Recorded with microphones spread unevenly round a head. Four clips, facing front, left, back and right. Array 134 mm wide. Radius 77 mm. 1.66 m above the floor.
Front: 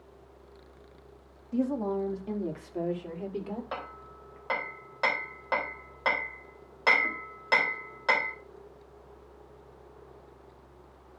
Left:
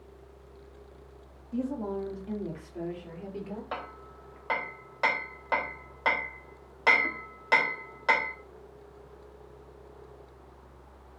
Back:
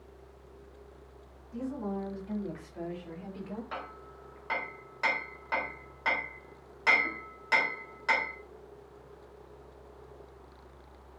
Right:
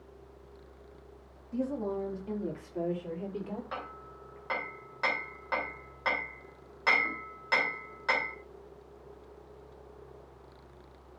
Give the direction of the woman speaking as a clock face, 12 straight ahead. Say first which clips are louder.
Left 1 dB, front 7 dB; 11 o'clock.